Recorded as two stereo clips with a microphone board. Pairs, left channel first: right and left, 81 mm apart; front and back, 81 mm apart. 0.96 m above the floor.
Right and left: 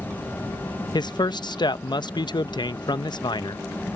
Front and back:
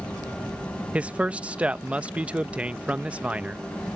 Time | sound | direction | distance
0.9 | a man speaking | 105° right | ?